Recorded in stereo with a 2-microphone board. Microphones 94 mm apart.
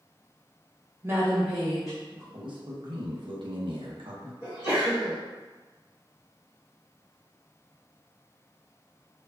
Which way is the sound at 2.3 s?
60° right (ahead or behind).